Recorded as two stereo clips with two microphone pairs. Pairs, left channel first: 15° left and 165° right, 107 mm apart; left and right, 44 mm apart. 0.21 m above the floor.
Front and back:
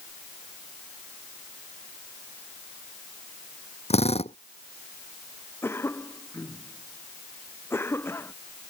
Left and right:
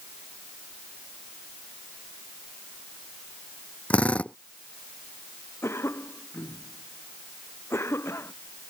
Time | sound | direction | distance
3.9 | a drill | 25° left | ?
5.6 | a cough | 80° left | ?